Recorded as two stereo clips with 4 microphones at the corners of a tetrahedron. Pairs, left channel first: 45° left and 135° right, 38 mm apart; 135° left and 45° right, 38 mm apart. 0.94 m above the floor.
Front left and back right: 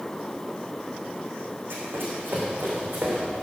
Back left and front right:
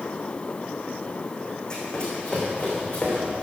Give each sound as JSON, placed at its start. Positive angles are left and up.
{"t": 1.7, "sound": "running footsteps", "azimuth_deg": -160, "distance_m": 4.0}